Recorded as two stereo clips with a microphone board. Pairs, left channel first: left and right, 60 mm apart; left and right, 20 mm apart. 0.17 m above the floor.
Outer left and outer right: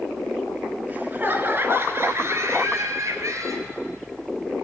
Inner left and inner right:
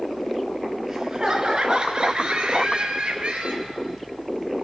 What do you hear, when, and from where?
0.9 s laughter: 30° right (ahead or behind), 2.5 m; by 3.8 s 65° right (ahead or behind), 4 m